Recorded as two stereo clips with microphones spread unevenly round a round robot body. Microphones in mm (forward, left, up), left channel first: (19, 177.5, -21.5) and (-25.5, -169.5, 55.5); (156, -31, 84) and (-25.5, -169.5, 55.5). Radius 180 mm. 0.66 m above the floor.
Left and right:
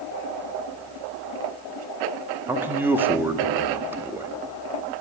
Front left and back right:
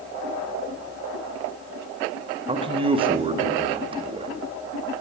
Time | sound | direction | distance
2.5 | a man speaking | 165° left | 1.5 m